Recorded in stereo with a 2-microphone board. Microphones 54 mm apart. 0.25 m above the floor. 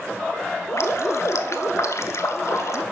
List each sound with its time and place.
0.7 s dripping: 65° left (ahead or behind), 0.7 m